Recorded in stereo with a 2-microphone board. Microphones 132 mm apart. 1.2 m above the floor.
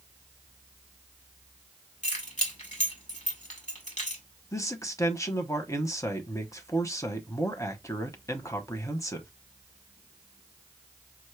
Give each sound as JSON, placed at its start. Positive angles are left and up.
{"t": 2.0, "sound": "keys jangling", "side_deg": 65, "distance_m": 1.9}
{"t": 4.5, "sound": "a man speaking", "side_deg": 25, "distance_m": 0.9}